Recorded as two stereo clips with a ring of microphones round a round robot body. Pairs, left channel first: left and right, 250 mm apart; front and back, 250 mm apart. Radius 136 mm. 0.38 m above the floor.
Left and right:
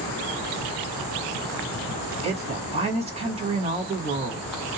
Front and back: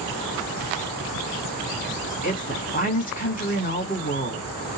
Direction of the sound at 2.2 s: 35° right.